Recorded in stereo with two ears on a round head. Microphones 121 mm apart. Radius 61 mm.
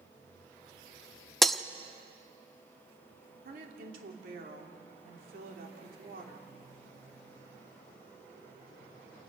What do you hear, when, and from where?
1.4 s breaking glass: centre (ahead or behind), 0.5 m
3.5 s a woman speaking: 70° right (ahead or behind), 3 m